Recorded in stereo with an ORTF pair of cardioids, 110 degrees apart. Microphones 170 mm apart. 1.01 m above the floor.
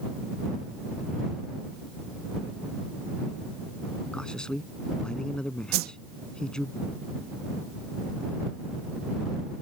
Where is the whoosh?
65° right.